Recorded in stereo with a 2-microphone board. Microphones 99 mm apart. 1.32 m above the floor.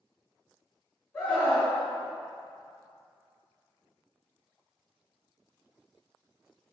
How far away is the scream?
About 2.0 m.